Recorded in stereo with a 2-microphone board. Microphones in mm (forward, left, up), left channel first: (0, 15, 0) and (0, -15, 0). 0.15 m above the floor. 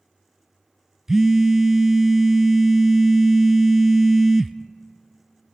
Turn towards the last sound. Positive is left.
turn(degrees=-20)  # may be behind; listen again after turning